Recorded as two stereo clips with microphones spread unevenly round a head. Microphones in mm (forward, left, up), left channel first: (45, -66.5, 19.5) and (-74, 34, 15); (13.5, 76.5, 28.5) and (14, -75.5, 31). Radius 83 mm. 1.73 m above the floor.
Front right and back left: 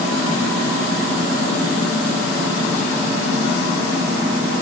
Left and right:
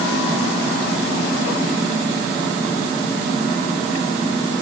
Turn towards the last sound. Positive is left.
No sound to turn to.